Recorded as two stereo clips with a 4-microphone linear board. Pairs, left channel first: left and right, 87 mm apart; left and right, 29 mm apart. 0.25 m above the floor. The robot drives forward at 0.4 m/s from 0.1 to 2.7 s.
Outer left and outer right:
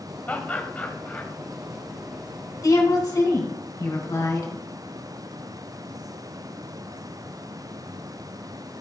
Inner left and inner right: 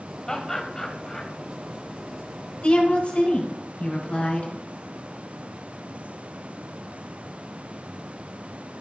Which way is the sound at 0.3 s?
20° left (ahead or behind).